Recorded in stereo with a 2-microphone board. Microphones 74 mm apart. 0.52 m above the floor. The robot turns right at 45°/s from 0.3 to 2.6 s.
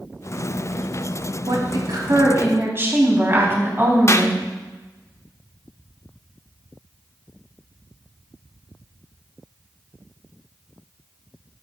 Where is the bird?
No bird in this recording.